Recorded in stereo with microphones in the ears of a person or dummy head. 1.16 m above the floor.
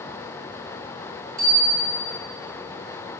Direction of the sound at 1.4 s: 45° right (ahead or behind).